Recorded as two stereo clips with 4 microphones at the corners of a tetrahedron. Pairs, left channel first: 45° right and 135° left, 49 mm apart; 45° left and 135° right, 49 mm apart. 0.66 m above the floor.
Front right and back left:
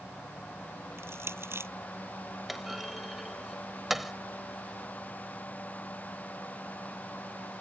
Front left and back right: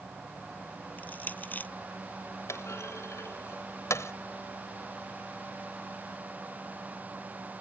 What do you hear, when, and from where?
1.0 s crushing: 100° left
2.5 s a clunk: 50° left